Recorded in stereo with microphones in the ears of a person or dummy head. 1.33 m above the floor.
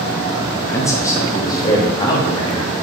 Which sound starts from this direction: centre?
A man speaking, at 0.5 s.